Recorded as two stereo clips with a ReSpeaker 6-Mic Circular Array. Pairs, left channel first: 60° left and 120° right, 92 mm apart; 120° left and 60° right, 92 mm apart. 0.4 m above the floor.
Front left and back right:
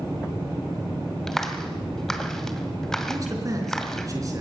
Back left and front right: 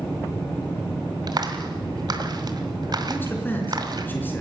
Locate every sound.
1.3 s a clap: 25° right, 1.8 m
3.1 s a man speaking: 170° right, 4.5 m